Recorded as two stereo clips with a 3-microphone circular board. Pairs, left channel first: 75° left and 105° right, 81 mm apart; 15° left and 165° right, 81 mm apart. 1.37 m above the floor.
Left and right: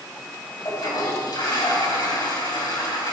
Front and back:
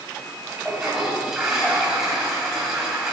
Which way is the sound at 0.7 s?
110° left.